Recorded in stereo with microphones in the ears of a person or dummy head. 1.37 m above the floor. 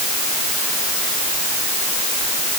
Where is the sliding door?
I don't hear a sliding door.